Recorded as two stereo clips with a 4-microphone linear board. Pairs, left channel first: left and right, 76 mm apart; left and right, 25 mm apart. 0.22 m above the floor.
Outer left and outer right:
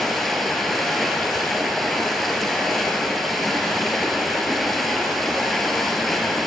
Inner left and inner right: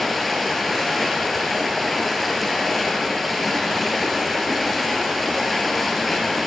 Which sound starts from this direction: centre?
Running water, at 0.0 s.